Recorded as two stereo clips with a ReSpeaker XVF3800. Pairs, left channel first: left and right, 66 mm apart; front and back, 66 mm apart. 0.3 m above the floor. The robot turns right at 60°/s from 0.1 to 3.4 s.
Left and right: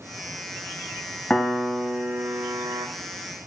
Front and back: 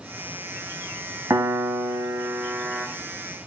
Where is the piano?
160° left, 1.0 m; by 2.9 s 105° right, 1.0 m.